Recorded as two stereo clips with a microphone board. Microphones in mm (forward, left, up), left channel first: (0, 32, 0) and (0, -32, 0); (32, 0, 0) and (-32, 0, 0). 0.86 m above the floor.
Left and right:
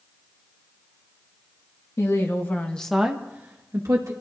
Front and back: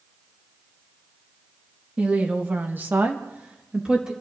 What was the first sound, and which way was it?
A woman speaking, 115° left.